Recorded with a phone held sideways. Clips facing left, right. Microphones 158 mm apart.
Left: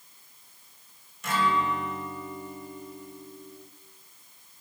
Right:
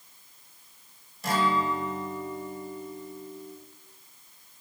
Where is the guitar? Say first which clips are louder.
Right 1 dB; 35° right (ahead or behind), 3 m.